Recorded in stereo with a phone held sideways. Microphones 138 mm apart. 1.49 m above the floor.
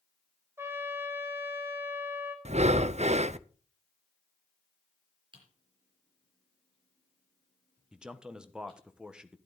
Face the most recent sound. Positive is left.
turn(degrees=-5)  # may be behind; listen again after turning